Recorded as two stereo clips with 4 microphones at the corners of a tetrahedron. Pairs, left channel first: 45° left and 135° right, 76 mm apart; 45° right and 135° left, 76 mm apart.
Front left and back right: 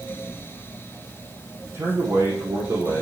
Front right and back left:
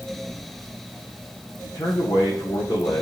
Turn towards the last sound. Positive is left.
turn(degrees=-80)